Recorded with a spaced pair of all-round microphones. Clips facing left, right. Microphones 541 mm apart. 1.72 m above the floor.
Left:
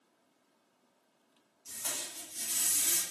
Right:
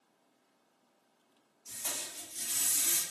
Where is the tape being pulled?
35° left (ahead or behind), 0.9 m.